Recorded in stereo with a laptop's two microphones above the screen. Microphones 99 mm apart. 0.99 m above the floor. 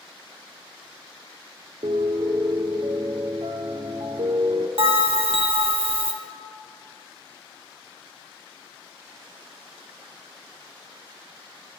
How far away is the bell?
About 0.6 m.